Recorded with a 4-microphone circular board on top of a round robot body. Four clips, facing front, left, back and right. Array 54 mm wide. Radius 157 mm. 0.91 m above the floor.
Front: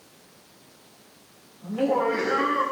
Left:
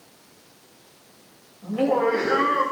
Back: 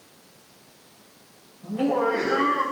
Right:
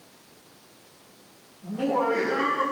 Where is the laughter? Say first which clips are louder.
Left 4 dB, even; 65° left, 4.5 m; by 2.6 s 70° left, 5.5 m.